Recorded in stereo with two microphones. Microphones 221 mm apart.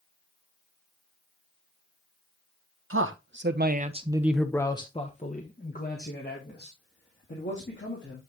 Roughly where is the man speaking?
Right.